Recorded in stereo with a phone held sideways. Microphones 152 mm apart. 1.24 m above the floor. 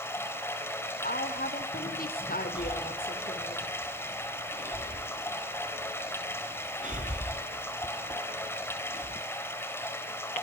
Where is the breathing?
55° right (ahead or behind), 2.0 m.